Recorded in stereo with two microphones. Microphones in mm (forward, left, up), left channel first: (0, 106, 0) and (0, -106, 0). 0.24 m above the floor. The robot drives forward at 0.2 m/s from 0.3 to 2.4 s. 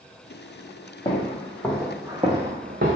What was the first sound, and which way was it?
Footsteps, 25° left (ahead or behind).